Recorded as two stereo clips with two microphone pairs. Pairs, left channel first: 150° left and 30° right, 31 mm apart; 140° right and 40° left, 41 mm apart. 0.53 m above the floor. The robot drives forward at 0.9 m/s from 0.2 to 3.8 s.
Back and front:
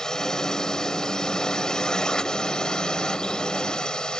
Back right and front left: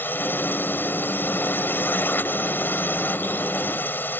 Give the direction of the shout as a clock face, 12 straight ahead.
I don't hear a shout.